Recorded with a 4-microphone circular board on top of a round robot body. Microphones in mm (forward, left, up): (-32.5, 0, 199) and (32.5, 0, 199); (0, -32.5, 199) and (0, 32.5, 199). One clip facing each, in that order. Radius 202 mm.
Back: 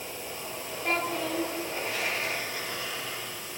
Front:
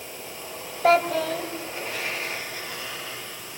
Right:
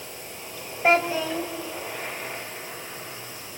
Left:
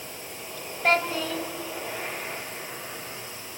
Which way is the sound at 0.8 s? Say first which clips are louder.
Front 10 dB, right 3 dB; 15° right.